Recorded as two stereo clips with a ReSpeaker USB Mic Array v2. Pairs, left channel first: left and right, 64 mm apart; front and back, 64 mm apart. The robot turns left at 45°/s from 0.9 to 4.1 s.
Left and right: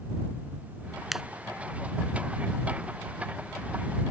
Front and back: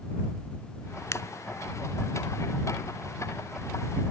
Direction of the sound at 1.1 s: 5° right.